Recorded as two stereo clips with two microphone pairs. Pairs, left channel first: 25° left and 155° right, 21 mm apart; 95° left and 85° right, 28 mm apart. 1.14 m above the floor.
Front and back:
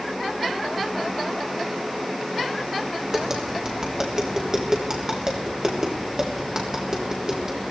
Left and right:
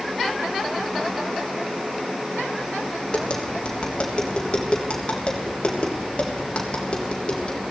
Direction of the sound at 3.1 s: 145° left.